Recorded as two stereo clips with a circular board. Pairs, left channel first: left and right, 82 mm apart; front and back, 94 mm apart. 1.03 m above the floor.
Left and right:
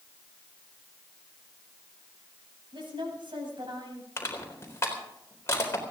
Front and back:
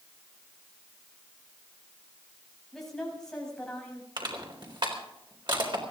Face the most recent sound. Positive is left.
turn(degrees=145)